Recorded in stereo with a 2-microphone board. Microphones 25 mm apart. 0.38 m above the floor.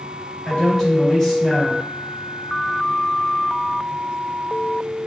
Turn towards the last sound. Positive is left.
turn(degrees=10)  # may be behind; listen again after turning